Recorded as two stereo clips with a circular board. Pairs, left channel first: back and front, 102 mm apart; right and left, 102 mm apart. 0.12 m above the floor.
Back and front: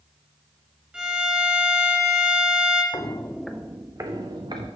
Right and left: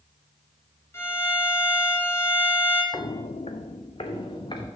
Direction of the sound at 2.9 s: 135° right.